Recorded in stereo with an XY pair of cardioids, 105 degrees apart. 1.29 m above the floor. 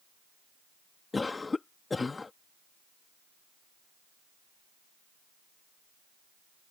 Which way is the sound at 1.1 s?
25° left.